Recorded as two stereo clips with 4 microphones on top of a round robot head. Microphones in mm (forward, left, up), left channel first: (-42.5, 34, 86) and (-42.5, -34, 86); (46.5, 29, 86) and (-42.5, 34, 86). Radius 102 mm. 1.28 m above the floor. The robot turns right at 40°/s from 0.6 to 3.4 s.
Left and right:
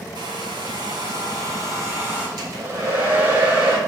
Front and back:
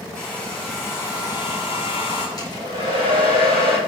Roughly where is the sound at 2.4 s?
Ahead right.